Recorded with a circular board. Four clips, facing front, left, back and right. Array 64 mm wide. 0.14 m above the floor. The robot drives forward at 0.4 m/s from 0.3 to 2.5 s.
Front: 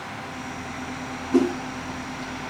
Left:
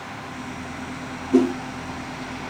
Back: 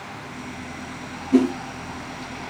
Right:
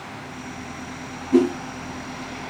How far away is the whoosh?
About 3 m.